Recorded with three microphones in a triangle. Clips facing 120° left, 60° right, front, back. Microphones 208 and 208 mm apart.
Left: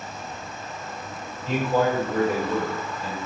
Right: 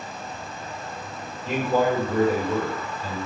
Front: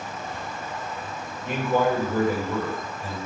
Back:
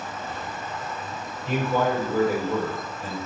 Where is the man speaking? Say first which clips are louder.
Even, front 1 dB; 25° right, 1.5 m; by 3.2 s straight behind, 1.7 m.